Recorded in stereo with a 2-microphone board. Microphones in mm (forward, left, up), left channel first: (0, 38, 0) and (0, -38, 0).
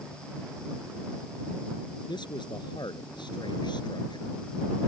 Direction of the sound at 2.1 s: 90° left.